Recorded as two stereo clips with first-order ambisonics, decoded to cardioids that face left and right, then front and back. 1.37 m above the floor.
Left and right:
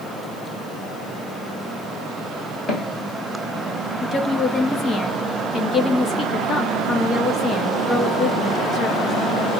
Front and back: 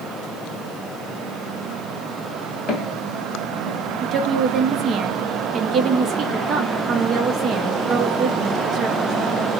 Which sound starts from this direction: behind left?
A woman speaking, at 4.0 s.